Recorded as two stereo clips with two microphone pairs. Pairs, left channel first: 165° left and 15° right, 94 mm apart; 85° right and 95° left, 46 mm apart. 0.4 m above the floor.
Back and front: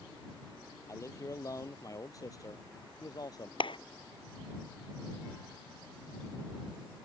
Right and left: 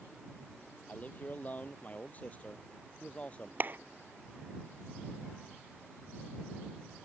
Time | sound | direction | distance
0.9 | a man speaking | 140° right | ?
3.6 | a clap | 140° left | ?